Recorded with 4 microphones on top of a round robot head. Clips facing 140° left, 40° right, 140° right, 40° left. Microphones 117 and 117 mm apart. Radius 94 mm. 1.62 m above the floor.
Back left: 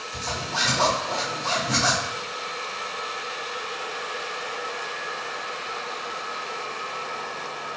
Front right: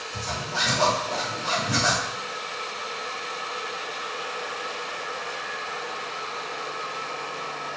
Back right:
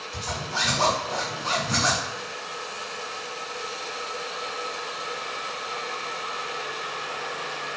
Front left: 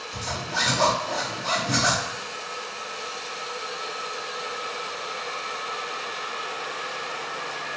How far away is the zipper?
About 1.5 m.